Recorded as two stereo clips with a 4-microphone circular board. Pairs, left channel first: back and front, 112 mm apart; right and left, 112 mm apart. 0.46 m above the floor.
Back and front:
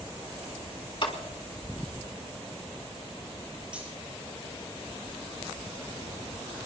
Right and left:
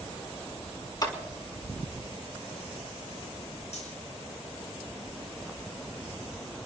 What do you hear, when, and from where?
1.0 s a clap: 140° right, 3 m
3.7 s cutlery clinking: 80° right, 8 m